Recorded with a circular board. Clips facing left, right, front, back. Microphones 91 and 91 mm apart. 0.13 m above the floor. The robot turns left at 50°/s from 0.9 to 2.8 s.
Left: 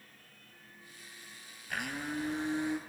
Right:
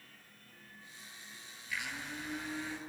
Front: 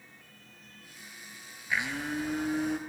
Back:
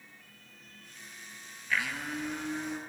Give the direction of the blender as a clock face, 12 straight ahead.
10 o'clock.